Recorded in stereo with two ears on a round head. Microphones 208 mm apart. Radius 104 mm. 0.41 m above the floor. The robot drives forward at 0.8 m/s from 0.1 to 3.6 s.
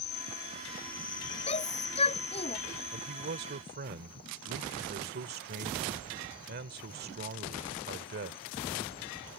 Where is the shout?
25° left (ahead or behind).